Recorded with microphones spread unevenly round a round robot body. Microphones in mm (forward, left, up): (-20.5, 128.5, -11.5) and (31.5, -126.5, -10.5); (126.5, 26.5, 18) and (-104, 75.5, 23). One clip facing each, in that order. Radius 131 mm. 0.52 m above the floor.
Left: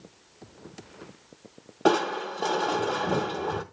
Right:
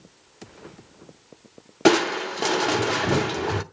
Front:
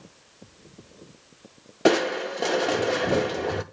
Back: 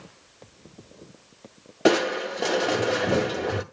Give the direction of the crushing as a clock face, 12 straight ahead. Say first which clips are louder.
Right 5 dB, even; 3 o'clock.